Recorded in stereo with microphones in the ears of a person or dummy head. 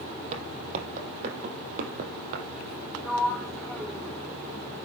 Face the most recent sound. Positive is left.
turn(degrees=0)  # may be behind; listen again after turning